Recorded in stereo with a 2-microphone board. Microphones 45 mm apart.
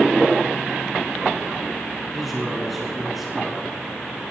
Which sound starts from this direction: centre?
A man speaking, at 2.1 s.